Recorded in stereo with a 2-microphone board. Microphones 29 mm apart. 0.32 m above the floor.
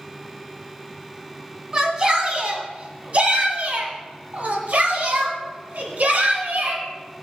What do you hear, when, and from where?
1.7 s a shout: 25° right (ahead or behind), 1.9 m; by 6.8 s 70° right (ahead or behind), 3 m